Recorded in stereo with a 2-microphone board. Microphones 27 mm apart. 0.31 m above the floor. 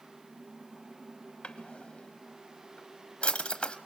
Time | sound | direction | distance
1.4 | a drawer | 40° left (ahead or behind) | 1.0 m